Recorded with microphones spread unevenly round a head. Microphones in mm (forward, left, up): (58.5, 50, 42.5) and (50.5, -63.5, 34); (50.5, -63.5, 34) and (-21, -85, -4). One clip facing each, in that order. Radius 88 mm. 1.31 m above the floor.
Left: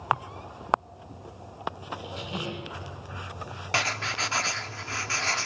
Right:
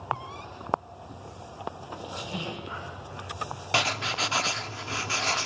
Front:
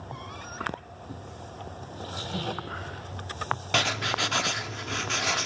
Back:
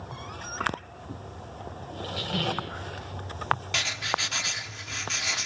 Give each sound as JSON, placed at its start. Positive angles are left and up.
{"t": 1.9, "sound": "a squeak", "azimuth_deg": 155, "distance_m": 1.2}
{"t": 3.7, "sound": "writing", "azimuth_deg": -20, "distance_m": 0.7}